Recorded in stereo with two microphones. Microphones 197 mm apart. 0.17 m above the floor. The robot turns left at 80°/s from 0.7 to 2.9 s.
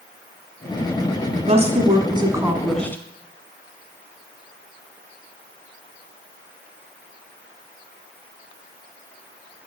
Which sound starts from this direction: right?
A woman speaking, at 1.5 s.